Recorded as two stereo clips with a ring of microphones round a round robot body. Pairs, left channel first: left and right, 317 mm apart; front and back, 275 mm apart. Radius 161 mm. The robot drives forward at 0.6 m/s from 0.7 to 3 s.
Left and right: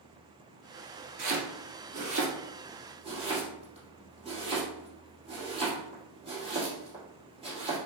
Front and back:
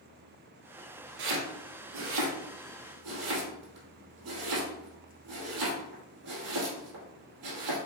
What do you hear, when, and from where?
1.2 s chopping: 150° right, 1.4 m; by 7.8 s 165° right, 2.5 m